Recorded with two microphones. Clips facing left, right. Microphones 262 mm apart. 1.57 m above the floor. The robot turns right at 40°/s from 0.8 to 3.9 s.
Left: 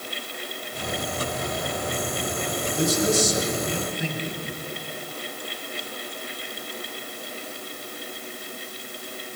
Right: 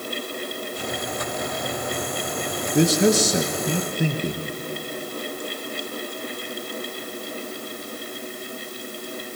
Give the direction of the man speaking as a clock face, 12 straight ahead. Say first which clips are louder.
Right 5 dB; 3 o'clock.